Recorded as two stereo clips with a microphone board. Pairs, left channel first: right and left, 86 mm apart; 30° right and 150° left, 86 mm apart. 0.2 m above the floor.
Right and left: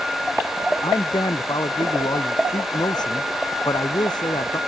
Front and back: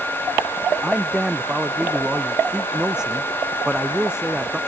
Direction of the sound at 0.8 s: 130° right.